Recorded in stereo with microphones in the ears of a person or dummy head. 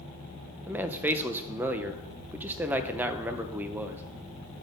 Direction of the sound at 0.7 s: 10° right (ahead or behind).